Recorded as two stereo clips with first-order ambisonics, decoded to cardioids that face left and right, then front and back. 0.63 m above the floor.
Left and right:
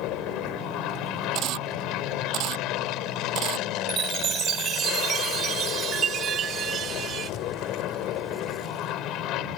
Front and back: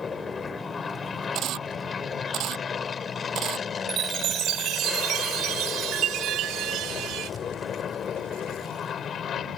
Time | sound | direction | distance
0.0 | an aircraft | 70° left | ?
1.4 | a camera shutter | 130° right | ?
3.9 | a chime | 145° right | ?